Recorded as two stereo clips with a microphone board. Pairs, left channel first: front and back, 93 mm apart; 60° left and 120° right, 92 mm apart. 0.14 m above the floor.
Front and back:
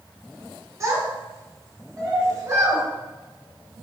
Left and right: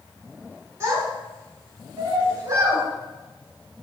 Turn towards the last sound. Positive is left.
turn(degrees=-150)